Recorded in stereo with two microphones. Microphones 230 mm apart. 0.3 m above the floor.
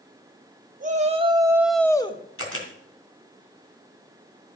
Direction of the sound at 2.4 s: 70° left (ahead or behind).